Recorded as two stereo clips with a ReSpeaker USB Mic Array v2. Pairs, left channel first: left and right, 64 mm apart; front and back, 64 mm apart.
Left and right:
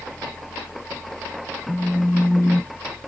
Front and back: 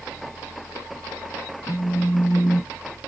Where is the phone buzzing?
40° left, 0.5 m.